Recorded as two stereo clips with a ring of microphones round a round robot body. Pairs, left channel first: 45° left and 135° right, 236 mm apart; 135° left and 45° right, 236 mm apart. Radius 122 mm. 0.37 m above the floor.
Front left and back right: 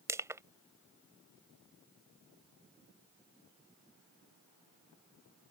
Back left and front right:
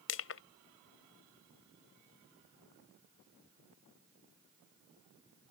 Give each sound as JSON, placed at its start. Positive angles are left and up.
{"t": 0.1, "sound": "crushing", "azimuth_deg": 150}